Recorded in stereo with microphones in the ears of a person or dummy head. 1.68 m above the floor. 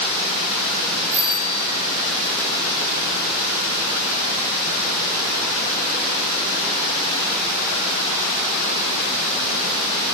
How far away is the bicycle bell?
About 7 m.